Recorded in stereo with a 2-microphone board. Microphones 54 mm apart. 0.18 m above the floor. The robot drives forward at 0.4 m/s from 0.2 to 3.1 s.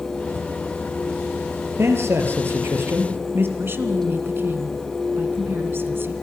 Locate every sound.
1.8 s a man speaking: 50° right (ahead or behind), 4 m; by 3.5 s 45° right (ahead or behind), 4 m
3.6 s a woman speaking: 45° right (ahead or behind), 2.0 m